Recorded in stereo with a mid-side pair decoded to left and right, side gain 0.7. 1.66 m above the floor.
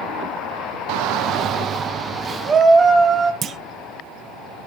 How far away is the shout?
About 0.6 m.